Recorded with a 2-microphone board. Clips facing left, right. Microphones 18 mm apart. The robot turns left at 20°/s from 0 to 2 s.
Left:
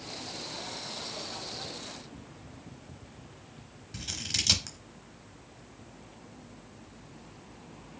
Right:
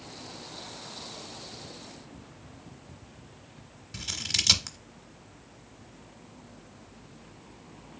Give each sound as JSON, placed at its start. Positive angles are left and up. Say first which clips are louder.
{"t": 3.9, "sound": "scissors", "louder": "right 3 dB", "side_deg": -10, "distance_m": 0.9}